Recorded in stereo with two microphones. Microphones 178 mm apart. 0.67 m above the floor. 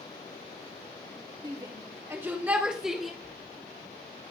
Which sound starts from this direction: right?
A shout, at 1.4 s.